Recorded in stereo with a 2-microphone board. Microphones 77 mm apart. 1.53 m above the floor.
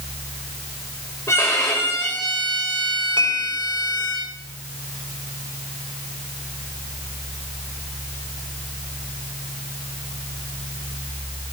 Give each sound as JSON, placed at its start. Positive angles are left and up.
{"t": 1.3, "sound": "a violin", "side_deg": 35, "distance_m": 6.0}
{"t": 3.2, "sound": "dishes clattering", "side_deg": -80, "distance_m": 4.0}